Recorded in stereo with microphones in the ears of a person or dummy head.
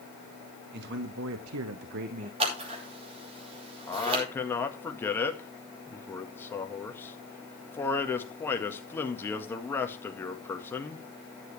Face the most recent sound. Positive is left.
turn(degrees=20)  # may be behind; listen again after turning